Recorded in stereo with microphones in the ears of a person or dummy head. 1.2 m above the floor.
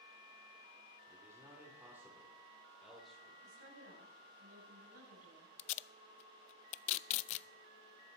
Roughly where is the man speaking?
Centre.